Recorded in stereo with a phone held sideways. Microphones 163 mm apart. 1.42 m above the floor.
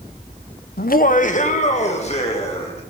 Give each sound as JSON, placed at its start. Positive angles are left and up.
{"t": 0.8, "sound": "laughter", "side_deg": 65, "distance_m": 0.7}